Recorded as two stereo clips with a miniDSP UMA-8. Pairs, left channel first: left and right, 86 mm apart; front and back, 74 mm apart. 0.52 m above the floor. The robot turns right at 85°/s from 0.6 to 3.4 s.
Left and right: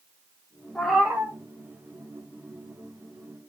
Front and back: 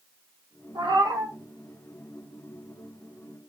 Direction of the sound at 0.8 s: 170° left.